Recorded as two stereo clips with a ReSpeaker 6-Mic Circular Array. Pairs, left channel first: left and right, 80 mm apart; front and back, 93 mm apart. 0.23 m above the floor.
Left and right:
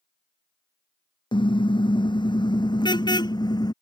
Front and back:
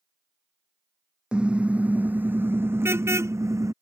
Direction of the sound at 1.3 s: 100° left.